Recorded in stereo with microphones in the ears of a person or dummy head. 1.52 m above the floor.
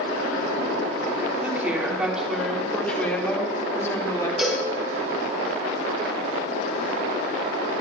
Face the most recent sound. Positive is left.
turn(degrees=0)  # may be behind; listen again after turning